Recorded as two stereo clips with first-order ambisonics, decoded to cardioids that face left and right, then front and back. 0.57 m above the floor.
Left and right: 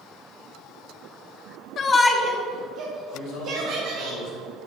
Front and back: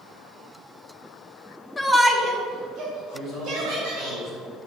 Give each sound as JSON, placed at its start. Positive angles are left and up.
{"t": 1.8, "sound": "a shout", "azimuth_deg": 65, "distance_m": 0.8}
{"t": 3.1, "sound": "a man speaking", "azimuth_deg": 80, "distance_m": 3.0}